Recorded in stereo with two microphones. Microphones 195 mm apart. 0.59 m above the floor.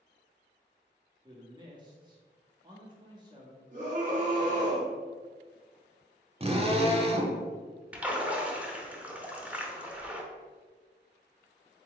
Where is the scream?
40° right (ahead or behind), 1.3 m.